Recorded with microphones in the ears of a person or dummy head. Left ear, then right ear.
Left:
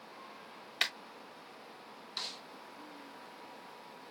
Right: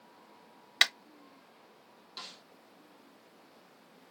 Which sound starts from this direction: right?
A clap, at 0.8 s.